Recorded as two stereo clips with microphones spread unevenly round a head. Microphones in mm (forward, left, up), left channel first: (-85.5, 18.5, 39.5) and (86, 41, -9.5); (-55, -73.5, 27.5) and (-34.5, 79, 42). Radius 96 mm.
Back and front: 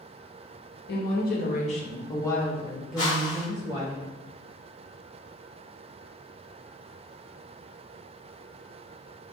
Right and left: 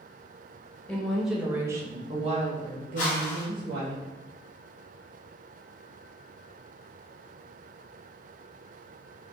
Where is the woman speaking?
175° left, 1.2 m; by 4.0 s 75° left, 1.5 m.